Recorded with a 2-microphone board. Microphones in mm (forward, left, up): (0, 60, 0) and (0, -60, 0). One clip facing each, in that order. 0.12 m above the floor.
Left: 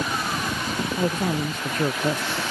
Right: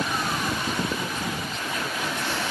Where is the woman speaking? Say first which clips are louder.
Left 7 dB; 50° left (ahead or behind); by 2.4 s 45° left (ahead or behind).